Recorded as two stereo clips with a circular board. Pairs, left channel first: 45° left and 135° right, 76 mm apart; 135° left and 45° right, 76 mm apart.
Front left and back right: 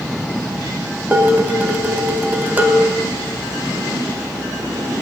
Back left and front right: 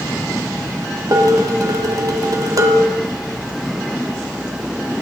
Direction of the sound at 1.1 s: 70° right.